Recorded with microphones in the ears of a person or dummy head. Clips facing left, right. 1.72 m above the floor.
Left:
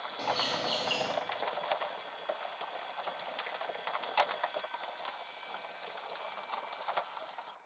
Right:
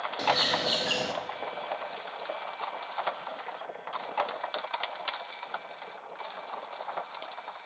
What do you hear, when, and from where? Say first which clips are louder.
0.2 s a bird: right 2 dB; 15° right (ahead or behind), 0.7 m